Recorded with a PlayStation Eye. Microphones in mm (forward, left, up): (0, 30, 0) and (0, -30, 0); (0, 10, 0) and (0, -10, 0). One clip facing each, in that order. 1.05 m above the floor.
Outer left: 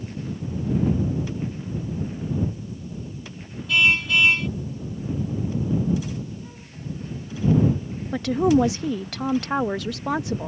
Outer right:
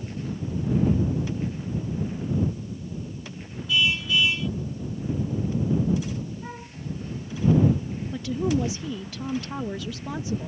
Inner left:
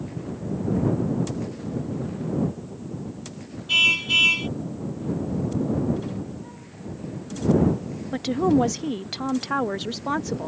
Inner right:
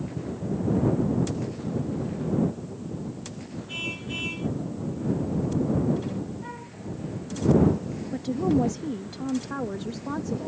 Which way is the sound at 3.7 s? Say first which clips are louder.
Outer left 4 dB, inner left 15 dB; 60° left (ahead or behind).